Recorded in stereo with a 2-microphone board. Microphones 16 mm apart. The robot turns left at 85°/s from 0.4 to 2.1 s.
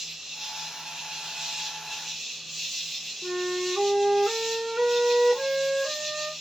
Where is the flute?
55° right (ahead or behind), 1.1 m.